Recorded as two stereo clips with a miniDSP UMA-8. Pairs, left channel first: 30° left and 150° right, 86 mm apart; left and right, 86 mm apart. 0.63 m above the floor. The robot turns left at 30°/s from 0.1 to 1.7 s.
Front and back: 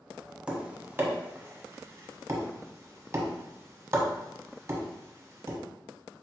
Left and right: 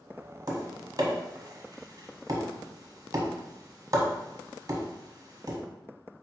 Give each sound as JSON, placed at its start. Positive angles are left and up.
{"t": 0.5, "sound": "tapping", "azimuth_deg": -75, "distance_m": 0.9}